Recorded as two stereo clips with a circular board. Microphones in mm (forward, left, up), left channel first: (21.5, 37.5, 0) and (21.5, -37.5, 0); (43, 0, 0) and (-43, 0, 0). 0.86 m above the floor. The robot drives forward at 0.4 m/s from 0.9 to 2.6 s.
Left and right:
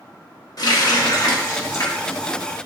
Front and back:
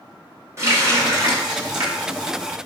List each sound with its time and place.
0.6 s a running tap: 120° left, 1.0 m; by 2.6 s 145° left, 1.4 m